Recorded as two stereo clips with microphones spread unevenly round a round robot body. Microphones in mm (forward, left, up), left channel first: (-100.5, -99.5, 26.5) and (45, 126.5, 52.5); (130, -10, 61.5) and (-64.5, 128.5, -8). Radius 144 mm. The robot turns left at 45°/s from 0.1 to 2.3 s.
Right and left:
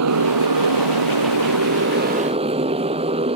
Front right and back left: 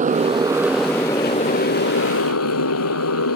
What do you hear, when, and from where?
0.0 s a motorcycle: 85° left; by 3.4 s 15° right